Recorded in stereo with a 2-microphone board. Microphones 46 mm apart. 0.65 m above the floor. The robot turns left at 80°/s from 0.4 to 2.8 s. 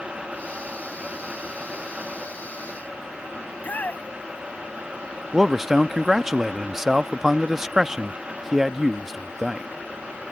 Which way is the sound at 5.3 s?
10° right (ahead or behind).